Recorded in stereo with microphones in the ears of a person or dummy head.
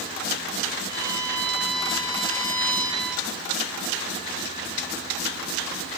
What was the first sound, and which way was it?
A violin, 25° left (ahead or behind).